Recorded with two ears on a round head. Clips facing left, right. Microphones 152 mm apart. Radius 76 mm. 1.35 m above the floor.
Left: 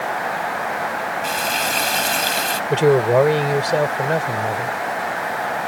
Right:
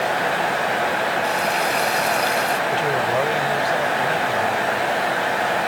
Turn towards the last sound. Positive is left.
turn(degrees=60)  # may be behind; listen again after turning